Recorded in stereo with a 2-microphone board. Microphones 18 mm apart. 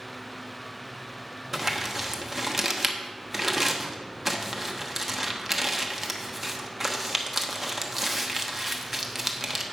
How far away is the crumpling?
About 0.9 m.